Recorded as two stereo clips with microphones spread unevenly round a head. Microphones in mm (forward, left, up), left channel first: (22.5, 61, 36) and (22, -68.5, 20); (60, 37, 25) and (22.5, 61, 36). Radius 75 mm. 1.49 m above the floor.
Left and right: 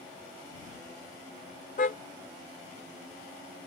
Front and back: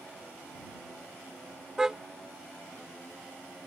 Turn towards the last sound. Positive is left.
turn(degrees=75)